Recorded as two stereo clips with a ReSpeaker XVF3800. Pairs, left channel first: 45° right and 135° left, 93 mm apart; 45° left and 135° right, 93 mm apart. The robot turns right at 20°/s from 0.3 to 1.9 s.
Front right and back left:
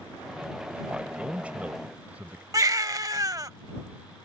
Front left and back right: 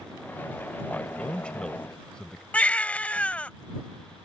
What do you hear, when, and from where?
0.9 s a man speaking: 85° left; by 2.4 s 105° left
2.5 s a baby crying: 115° left